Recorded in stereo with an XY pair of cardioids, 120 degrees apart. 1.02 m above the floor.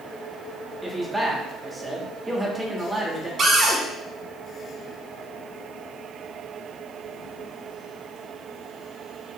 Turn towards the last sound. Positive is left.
turn(degrees=-40)